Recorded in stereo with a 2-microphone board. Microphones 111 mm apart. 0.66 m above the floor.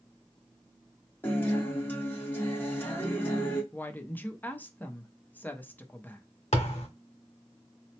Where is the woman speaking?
15° left (ahead or behind), 0.6 m.